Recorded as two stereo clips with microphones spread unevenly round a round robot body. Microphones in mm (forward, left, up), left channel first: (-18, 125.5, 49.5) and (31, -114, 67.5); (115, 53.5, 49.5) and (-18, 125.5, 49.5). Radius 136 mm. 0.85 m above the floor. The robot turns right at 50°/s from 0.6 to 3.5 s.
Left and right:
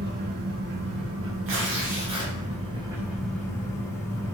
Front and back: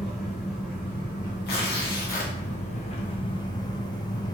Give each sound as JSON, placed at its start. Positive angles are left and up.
{"t": 0.0, "sound": "an engine running", "azimuth_deg": -115, "distance_m": 0.9}
{"t": 1.5, "sound": "tearing paper", "azimuth_deg": -40, "distance_m": 0.8}